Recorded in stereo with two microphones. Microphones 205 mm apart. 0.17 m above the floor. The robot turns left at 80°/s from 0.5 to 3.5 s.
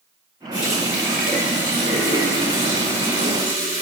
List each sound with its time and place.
0.5 s a running tap: 75° right, 1.9 m; by 3.8 s 50° left, 1.9 m